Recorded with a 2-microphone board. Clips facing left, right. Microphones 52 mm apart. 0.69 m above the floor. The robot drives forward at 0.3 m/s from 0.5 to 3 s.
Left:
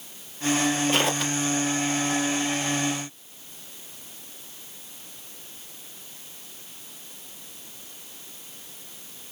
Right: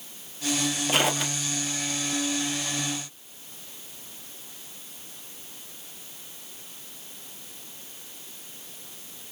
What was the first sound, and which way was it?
Footsteps, 5° right (ahead or behind).